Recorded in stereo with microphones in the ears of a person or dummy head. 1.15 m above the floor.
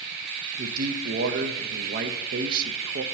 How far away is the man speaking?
About 0.5 m.